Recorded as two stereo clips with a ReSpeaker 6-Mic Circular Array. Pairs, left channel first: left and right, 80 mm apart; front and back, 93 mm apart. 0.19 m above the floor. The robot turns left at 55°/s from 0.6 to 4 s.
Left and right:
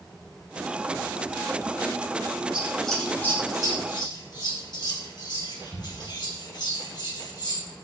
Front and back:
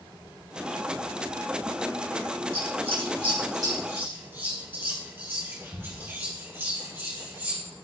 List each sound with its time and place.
2.5 s scissors: 165° right, 2.5 m; by 7.6 s 115° left, 2.5 m